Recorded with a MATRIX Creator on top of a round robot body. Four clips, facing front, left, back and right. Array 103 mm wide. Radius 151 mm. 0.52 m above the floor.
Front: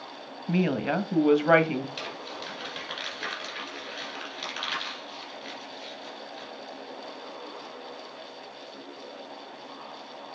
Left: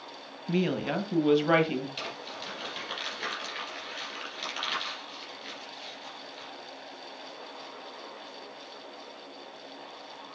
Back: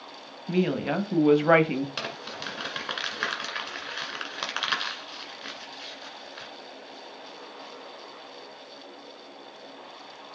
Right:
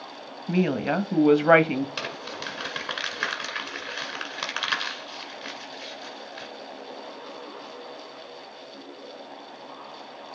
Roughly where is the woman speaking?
Ahead right.